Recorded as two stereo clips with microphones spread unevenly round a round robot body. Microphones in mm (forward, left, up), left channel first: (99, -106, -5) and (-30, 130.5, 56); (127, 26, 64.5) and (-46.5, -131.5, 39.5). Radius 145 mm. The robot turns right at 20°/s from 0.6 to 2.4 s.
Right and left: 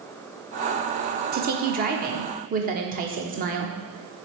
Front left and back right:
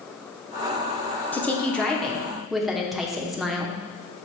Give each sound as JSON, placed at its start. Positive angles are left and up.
{"t": 1.3, "sound": "a woman speaking", "azimuth_deg": 130, "distance_m": 1.0}